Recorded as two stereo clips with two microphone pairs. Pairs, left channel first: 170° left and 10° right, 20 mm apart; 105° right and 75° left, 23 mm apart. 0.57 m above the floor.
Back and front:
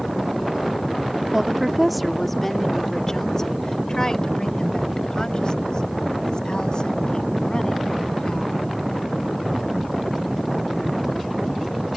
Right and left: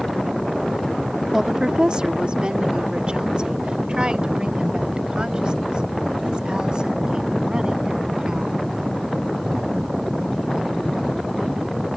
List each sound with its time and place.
1.3 s a woman speaking: 30° left; by 8.6 s 130° left